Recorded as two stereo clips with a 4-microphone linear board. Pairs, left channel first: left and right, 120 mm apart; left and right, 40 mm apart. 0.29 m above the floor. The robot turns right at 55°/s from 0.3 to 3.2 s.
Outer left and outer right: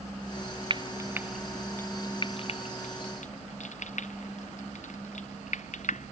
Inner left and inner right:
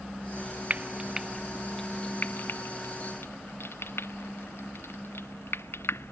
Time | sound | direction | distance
0.7 | frying | 40° right (ahead or behind) | ?